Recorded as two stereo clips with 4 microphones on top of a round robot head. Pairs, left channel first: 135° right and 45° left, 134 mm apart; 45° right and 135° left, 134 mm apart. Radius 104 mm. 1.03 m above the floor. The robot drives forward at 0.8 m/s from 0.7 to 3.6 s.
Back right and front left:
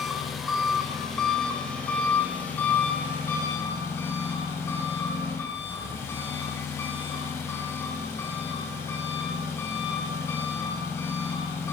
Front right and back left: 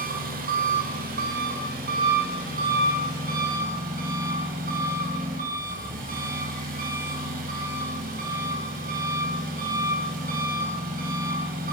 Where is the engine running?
135° left, 4 m; by 11.7 s 150° left, 6 m.